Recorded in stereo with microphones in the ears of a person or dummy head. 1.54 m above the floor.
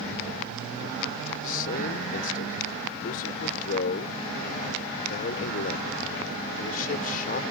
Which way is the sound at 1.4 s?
50° left (ahead or behind).